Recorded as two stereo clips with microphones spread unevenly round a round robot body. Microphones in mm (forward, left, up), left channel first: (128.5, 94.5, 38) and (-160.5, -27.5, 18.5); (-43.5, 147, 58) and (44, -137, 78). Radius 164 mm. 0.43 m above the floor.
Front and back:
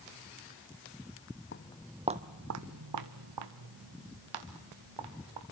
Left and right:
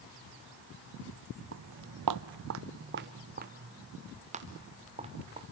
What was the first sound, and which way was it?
Footsteps, 30° right.